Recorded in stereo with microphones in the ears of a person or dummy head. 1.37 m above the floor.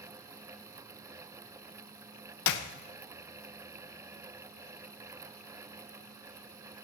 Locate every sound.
2.5 s a clap: 65° left (ahead or behind), 0.8 m